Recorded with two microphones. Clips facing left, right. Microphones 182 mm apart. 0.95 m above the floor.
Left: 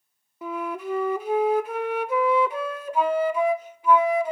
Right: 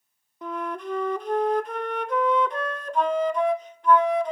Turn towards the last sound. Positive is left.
turn(degrees=5)  # may be behind; listen again after turning